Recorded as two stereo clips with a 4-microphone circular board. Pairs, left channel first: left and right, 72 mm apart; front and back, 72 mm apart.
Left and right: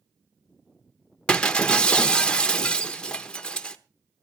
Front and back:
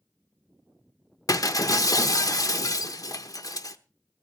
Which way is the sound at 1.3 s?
15° left.